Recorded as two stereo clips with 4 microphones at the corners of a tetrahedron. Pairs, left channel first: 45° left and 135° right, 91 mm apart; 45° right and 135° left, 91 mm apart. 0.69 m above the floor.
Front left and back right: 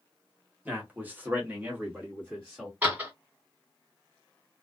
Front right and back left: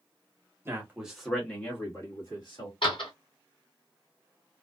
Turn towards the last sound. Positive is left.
turn(degrees=-65)